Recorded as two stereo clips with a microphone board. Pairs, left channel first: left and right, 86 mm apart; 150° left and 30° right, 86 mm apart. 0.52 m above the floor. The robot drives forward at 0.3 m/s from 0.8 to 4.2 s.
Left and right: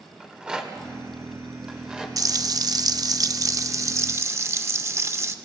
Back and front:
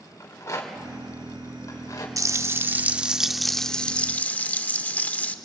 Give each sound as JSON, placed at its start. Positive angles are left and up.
{"t": 0.2, "sound": "a rattle", "azimuth_deg": -165, "distance_m": 2.0}
{"t": 2.2, "sound": "frying", "azimuth_deg": -65, "distance_m": 0.5}